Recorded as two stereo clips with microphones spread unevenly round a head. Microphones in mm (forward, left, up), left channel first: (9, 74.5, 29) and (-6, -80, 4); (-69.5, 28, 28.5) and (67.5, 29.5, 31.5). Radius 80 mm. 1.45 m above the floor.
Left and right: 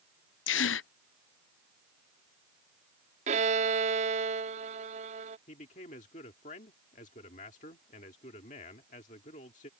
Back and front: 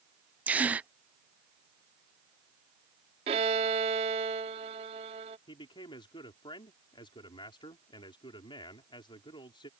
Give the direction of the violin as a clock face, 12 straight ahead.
2 o'clock.